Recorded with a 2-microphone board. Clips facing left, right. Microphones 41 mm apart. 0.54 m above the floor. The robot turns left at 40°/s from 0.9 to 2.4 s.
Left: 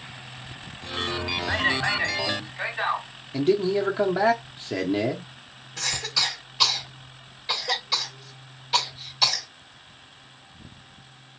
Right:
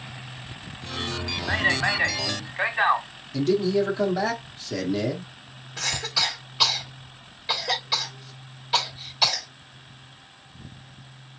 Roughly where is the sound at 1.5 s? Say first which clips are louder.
Right 2 dB; ahead.